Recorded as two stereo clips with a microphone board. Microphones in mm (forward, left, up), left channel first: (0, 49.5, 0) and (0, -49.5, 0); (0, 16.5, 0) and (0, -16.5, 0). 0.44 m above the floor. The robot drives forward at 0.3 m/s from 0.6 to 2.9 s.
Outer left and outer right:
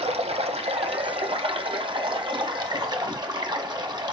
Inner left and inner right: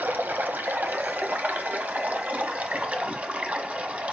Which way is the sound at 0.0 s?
80° right.